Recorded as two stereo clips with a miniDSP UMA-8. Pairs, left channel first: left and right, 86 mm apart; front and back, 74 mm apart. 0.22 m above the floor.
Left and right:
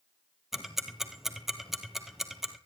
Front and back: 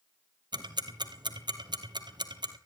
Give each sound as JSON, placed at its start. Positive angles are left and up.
{"t": 0.5, "sound": "ticking", "azimuth_deg": -175, "distance_m": 1.2}